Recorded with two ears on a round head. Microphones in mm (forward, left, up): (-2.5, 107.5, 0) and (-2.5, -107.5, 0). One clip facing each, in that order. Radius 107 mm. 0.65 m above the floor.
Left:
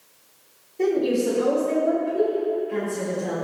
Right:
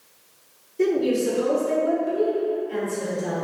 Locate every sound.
0.8 s a woman speaking: 25° right (ahead or behind), 1.3 m; by 3.4 s 20° right (ahead or behind), 3.5 m